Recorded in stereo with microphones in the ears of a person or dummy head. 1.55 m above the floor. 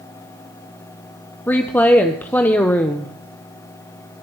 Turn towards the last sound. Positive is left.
turn(degrees=5)  # may be behind; listen again after turning